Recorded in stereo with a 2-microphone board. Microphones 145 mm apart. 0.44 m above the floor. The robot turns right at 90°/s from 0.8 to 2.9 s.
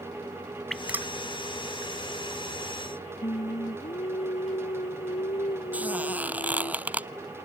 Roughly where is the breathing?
I don't hear breathing.